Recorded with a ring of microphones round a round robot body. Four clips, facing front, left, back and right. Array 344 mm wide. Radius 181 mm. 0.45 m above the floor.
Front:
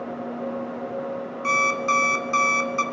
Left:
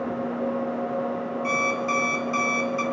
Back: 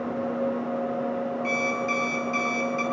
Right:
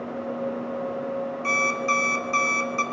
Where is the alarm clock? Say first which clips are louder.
Even, front 4 dB; 25° right, 1.2 m.